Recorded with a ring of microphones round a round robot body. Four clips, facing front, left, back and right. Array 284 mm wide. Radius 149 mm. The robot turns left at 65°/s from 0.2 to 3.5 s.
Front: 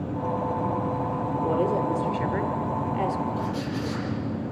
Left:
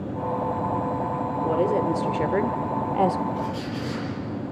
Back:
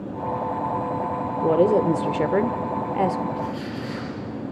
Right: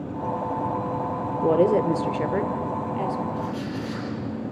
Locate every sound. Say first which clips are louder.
1.4 s a woman speaking: right 4 dB, back 7 dB; 130° right, 1.4 m; by 3.2 s 110° left, 1.4 m
3.4 s a squeak: even, even; 30° left, 9 m; by 4.1 s 20° left, 9 m